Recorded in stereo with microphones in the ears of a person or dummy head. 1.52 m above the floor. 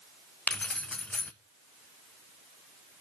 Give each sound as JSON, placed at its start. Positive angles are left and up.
{"t": 0.5, "sound": "keys jangling", "side_deg": 5, "distance_m": 0.6}